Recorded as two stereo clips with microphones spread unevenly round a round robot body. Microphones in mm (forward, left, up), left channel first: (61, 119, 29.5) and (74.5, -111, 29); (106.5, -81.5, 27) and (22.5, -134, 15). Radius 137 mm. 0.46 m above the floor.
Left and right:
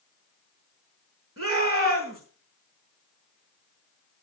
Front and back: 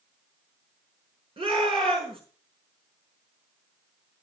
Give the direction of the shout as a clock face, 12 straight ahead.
4 o'clock.